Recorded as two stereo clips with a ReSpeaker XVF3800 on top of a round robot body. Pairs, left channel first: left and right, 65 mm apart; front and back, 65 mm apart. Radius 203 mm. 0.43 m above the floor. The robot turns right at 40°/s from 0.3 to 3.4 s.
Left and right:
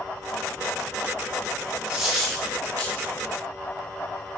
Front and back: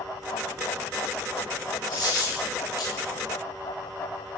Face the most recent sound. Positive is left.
turn(degrees=45)